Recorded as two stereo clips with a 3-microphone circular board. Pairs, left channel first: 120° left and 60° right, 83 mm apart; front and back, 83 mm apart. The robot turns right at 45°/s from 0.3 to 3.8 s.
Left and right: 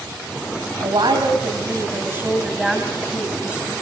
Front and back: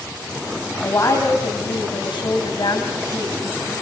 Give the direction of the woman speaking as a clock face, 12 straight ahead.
2 o'clock.